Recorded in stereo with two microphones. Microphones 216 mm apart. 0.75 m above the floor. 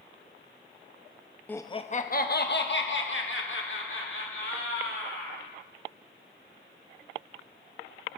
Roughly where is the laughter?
Centre.